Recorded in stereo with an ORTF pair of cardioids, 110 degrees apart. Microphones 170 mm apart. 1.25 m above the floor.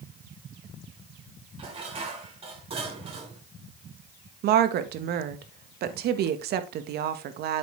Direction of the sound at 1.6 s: 35° right.